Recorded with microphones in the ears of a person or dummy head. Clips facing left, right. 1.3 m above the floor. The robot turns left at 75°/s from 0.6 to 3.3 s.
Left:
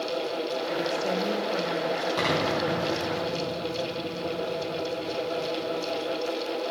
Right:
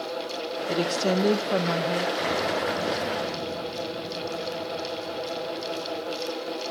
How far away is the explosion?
About 2.5 m.